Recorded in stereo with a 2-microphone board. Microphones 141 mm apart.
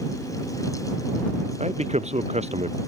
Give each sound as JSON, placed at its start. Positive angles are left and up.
{"t": 1.6, "sound": "a man speaking", "side_deg": -50}